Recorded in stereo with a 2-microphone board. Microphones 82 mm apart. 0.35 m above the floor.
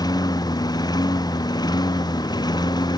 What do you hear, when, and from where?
0.0 s a lawn mower: 55° left (ahead or behind)